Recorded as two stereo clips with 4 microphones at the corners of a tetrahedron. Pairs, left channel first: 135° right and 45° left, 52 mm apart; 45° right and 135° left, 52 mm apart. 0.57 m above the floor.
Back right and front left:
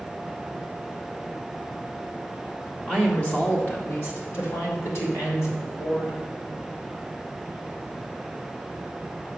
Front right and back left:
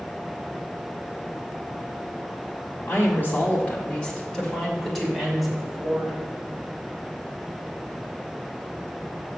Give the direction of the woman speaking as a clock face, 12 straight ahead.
2 o'clock.